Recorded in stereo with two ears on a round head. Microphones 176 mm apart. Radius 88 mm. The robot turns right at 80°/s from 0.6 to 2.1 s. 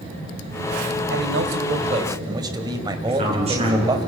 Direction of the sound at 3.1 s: 30° right (ahead or behind).